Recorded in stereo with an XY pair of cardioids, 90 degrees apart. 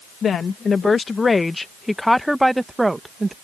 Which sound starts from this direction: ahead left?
A woman speaking, at 0.2 s.